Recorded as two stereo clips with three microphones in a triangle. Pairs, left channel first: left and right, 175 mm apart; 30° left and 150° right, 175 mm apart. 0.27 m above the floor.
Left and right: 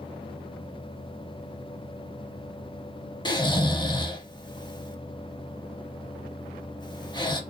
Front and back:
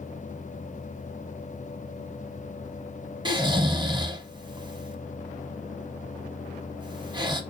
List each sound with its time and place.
3.2 s snoring: 150° left, 0.7 m